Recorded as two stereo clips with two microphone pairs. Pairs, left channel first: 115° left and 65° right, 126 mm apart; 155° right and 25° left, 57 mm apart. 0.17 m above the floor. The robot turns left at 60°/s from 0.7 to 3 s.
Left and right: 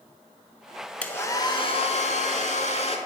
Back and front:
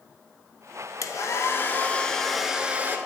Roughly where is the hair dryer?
Behind.